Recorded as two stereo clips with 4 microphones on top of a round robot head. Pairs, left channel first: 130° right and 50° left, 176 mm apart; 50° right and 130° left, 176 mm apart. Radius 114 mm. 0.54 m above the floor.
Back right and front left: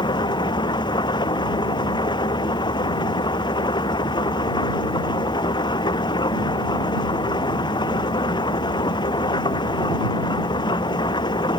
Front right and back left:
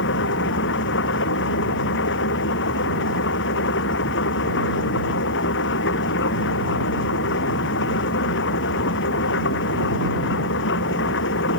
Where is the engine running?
65° right.